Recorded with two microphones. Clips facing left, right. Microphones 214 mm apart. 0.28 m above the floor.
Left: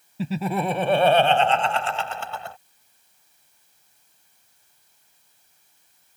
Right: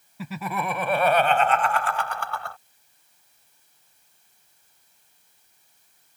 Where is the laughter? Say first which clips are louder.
Left 6 dB; 30° left (ahead or behind); by 2.6 s 20° left (ahead or behind).